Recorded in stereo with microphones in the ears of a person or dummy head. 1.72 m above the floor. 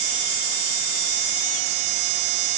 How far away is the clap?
No clap in this recording.